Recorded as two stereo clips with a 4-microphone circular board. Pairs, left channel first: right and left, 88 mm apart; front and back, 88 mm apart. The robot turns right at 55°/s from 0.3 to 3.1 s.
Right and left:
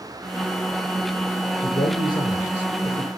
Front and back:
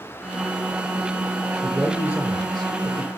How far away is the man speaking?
About 4 m.